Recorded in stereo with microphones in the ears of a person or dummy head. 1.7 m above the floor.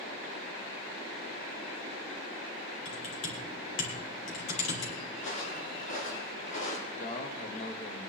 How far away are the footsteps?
About 3.5 m.